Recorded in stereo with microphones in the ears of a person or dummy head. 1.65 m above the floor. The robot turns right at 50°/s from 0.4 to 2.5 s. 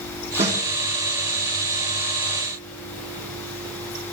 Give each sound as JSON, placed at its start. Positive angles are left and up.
{"t": 0.4, "sound": "a snare drum", "side_deg": -35, "distance_m": 3.0}